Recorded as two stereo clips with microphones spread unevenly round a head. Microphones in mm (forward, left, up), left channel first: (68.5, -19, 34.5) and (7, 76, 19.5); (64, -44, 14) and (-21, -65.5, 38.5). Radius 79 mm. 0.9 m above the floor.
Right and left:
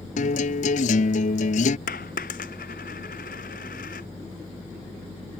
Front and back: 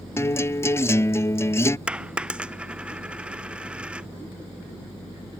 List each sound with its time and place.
0.2 s a guitar: 50° right
1.9 s a dropped coin: 90° right